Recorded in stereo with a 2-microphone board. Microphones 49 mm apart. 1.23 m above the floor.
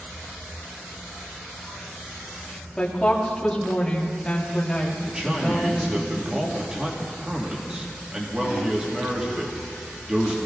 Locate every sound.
2.8 s a woman speaking: 15° left (ahead or behind), 2.5 m
5.0 s a man speaking: 15° right (ahead or behind), 2.5 m